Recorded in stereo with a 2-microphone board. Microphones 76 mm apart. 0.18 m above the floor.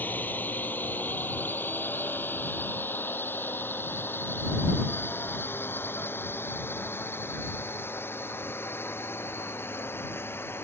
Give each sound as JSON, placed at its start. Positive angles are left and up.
{"t": 0.0, "sound": "a drone", "side_deg": 25}